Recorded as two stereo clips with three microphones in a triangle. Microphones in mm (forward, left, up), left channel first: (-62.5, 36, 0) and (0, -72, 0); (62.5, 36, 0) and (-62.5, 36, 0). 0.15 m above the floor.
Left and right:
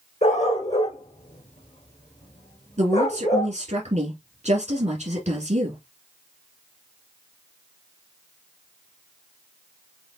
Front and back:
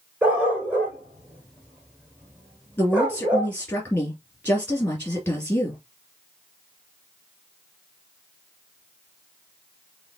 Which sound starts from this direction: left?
A dog barking, at 0.2 s.